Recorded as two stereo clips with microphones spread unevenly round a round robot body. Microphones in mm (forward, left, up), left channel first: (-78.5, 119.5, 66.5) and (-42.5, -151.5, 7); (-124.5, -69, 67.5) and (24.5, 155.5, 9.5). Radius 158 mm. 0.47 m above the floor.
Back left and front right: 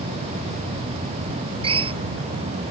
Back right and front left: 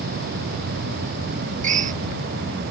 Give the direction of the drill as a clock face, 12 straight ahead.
12 o'clock.